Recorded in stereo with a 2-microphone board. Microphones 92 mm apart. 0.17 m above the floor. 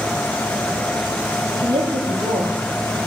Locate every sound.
1.6 s a woman speaking: 65° right (ahead or behind), 4.5 m